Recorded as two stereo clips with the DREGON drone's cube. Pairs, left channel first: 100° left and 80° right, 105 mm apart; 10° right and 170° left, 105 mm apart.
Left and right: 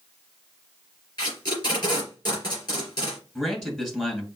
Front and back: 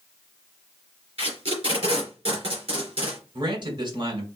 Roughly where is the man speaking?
Behind.